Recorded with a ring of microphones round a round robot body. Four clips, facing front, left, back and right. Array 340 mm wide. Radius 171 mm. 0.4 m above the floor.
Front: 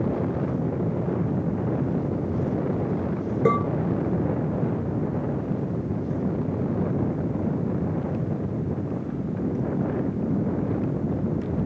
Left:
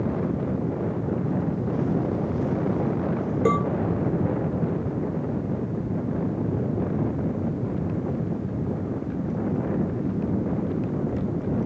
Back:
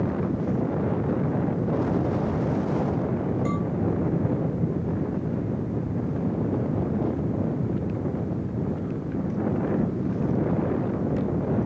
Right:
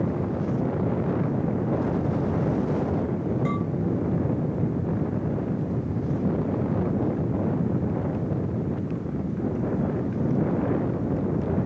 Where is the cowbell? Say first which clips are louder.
Left 6 dB, front 6 dB; 35° left.